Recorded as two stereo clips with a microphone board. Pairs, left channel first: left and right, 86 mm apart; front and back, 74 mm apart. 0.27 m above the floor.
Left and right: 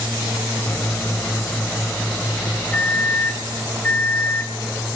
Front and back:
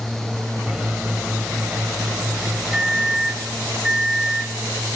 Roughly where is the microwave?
Behind left.